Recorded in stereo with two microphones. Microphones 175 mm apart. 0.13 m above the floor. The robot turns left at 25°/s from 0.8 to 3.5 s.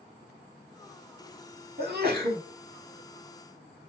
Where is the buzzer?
I don't hear a buzzer.